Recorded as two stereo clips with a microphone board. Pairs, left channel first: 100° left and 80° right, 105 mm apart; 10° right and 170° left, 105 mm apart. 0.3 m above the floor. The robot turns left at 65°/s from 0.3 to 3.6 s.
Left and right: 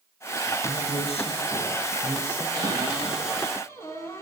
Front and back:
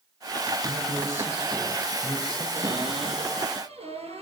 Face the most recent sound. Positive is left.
turn(degrees=165)